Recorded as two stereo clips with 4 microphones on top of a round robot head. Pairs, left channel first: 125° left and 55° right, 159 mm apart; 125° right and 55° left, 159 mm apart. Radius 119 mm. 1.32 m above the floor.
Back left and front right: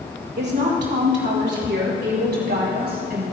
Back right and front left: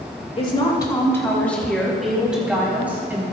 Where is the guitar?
No guitar in this recording.